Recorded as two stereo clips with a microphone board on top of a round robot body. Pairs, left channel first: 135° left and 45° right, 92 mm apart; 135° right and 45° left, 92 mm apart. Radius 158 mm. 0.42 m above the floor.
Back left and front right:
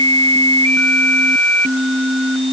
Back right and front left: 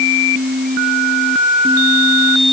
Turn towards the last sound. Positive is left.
No sound to turn to.